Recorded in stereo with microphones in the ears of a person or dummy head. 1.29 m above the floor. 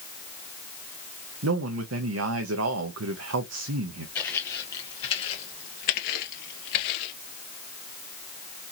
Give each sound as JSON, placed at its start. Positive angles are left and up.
{"t": 1.4, "sound": "a man speaking", "side_deg": -85, "distance_m": 0.8}
{"t": 4.2, "sound": "footsteps", "side_deg": 5, "distance_m": 2.0}